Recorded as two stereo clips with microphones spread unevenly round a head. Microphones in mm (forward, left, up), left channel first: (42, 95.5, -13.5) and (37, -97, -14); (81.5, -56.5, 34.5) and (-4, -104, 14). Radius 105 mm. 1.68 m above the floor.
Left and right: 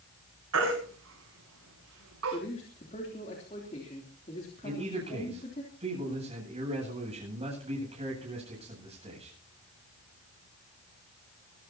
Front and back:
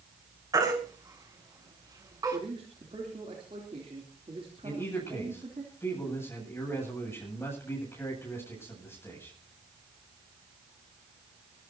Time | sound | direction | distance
0.5 | a baby crying | 95° right | 8 m
2.3 | a man speaking | 150° left | 3 m
4.6 | a man speaking | 35° right | 9 m